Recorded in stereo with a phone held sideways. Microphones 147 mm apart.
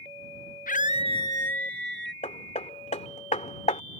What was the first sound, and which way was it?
A scream, 75° left (ahead or behind).